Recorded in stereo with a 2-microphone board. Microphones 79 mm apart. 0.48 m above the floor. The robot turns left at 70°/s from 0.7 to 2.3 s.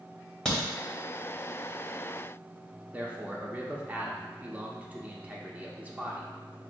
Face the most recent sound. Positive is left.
turn(degrees=-20)  # may be behind; listen again after turning